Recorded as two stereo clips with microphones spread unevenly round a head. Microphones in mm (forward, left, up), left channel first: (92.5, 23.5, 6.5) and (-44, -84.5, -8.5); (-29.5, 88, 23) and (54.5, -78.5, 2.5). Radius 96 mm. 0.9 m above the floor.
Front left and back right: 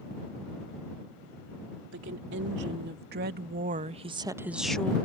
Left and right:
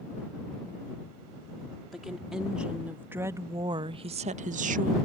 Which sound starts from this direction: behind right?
A woman speaking, at 1.9 s.